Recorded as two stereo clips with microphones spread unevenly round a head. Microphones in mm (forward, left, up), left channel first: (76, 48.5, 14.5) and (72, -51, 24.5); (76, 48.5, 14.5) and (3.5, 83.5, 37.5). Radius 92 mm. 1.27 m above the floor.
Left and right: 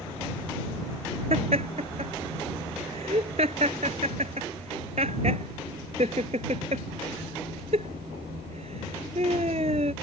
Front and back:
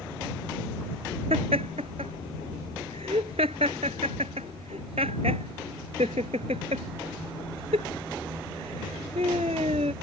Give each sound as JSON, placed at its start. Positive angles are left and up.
{"t": 1.3, "sound": "laughter", "azimuth_deg": -150}